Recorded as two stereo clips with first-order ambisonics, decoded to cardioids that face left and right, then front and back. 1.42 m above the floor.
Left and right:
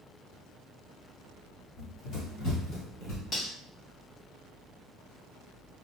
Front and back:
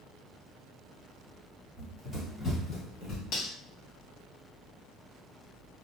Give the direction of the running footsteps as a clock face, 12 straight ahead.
9 o'clock.